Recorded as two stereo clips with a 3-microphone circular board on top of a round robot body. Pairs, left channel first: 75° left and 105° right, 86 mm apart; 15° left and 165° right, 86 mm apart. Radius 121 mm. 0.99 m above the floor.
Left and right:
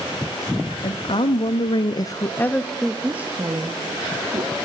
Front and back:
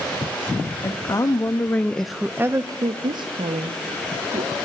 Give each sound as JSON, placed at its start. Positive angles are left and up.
{"t": 0.8, "sound": "a woman speaking", "azimuth_deg": 65, "distance_m": 2.0}